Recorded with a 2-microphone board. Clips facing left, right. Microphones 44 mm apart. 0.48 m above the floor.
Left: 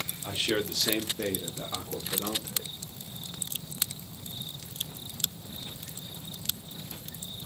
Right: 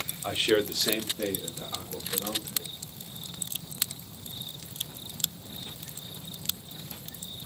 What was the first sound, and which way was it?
A man speaking, 30° right (ahead or behind).